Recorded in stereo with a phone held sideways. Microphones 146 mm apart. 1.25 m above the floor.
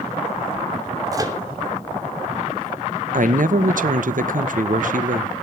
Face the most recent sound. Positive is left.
turn(degrees=-65)  # may be behind; listen again after turning